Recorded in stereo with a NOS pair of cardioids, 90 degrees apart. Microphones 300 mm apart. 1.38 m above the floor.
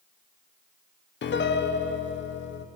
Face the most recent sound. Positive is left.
turn(degrees=35)